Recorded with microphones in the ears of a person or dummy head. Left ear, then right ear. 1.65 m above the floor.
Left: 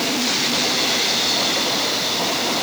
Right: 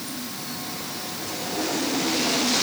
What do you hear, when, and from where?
Only background noise.